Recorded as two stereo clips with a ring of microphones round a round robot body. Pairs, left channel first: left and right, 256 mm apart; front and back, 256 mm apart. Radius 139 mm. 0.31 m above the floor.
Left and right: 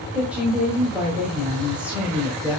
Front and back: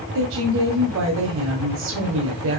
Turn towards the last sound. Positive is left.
turn(degrees=-175)